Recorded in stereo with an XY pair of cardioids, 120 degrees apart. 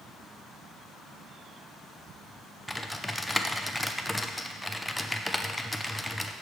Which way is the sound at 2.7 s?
5° left.